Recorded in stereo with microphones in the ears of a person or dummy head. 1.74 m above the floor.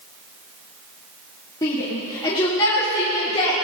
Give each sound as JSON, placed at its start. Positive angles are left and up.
{"t": 1.6, "sound": "a shout", "side_deg": 15, "distance_m": 3.0}